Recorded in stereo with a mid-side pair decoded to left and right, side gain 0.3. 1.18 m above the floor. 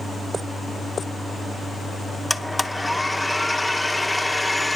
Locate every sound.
2.3 s a blender: 5° left, 0.8 m